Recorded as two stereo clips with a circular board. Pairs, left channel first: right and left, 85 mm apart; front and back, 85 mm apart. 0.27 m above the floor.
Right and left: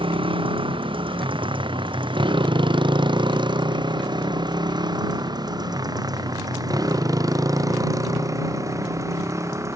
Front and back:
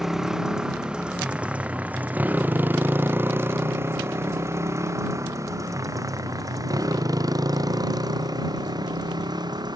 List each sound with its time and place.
0.0 s a motorcycle: 95° left; by 9.8 s 145° left